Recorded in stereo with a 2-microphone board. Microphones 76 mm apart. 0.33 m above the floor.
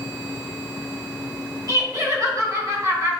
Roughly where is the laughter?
Right.